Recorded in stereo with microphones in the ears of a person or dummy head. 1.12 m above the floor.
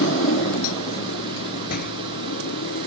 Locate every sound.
0.0 s a motorcycle: 65° left (ahead or behind); by 2.9 s 90° left
1.7 s a door slam: 55° left (ahead or behind)